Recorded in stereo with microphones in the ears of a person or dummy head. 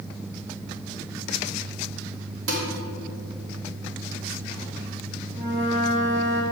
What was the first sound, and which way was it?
Dishes clattering, 75° right (ahead or behind).